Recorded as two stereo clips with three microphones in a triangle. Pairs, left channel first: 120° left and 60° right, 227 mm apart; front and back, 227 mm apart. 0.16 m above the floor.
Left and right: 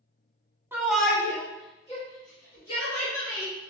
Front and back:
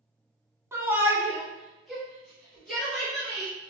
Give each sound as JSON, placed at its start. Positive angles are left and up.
{"t": 0.7, "sound": "a shout", "azimuth_deg": -125, "distance_m": 1.1}